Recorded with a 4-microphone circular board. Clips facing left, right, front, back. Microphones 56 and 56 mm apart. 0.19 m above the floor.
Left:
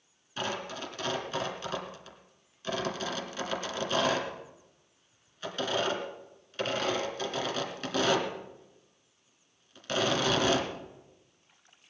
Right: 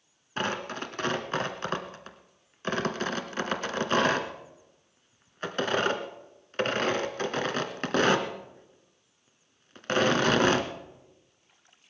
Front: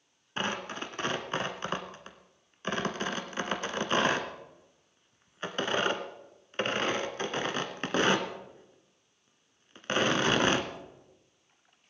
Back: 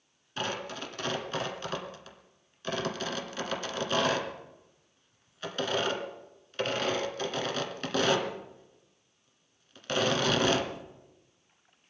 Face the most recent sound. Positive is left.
turn(degrees=-55)